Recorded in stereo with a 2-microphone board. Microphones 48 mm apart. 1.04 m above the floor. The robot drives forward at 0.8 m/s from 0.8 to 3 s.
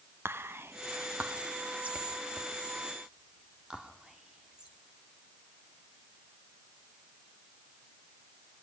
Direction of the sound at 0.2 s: 55° right (ahead or behind).